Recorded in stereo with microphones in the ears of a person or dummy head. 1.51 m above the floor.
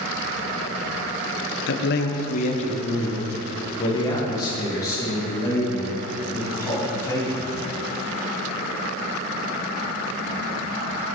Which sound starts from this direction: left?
A man speaking, at 1.7 s.